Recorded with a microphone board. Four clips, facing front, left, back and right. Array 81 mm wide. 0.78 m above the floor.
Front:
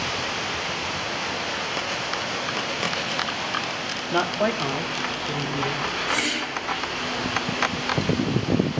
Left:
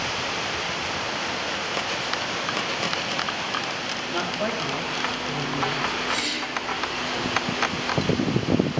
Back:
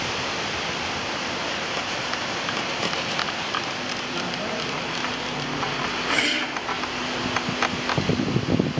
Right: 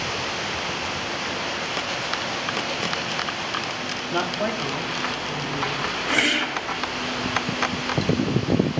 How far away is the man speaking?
About 0.8 m.